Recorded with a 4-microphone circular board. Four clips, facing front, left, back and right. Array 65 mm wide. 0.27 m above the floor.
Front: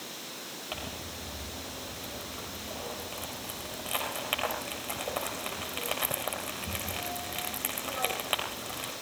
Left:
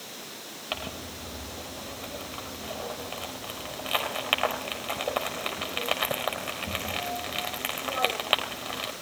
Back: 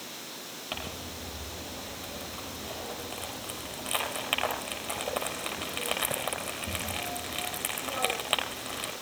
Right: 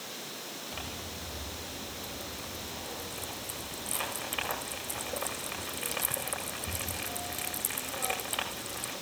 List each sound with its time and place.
0.7 s crumpling: 95° left, 4.5 m